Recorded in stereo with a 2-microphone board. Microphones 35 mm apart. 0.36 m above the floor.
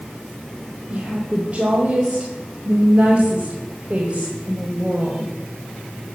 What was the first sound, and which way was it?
A woman speaking, 35° right (ahead or behind).